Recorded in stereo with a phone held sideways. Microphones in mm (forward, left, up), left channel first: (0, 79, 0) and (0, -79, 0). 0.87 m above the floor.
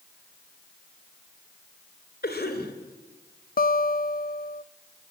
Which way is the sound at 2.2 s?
80° left.